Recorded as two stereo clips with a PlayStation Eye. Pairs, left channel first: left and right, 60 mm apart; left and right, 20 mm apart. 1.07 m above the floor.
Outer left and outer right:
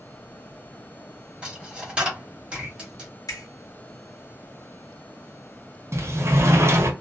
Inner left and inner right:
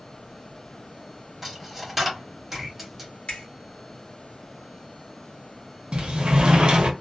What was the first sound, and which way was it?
A dropped coin, 15° right (ahead or behind).